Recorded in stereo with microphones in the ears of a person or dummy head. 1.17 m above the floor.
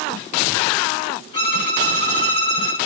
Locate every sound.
1.3 s a violin: 25° left (ahead or behind), 5 m